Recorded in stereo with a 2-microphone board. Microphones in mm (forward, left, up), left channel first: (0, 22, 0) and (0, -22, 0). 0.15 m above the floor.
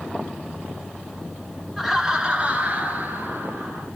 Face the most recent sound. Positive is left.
turn(degrees=-55)  # may be behind; listen again after turning